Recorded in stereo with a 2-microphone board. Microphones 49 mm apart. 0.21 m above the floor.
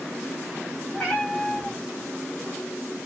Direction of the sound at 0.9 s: 20° left (ahead or behind).